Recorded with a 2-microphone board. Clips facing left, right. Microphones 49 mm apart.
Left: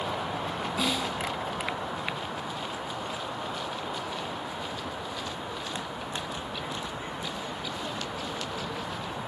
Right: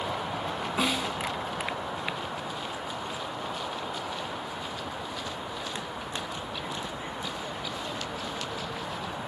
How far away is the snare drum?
About 2 m.